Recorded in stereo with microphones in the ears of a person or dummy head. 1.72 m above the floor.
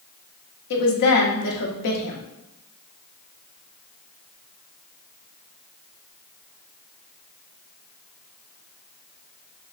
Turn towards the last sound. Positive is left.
turn(degrees=55)  # may be behind; listen again after turning